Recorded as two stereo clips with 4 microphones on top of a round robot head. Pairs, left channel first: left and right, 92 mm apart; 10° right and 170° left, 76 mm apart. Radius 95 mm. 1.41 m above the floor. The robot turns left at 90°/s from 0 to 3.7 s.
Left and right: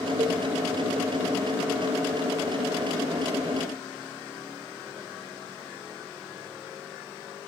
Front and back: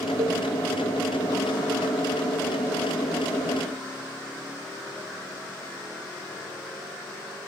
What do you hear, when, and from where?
0.2 s a cowbell: 145° right, 0.9 m; by 0.4 s 160° right, 0.9 m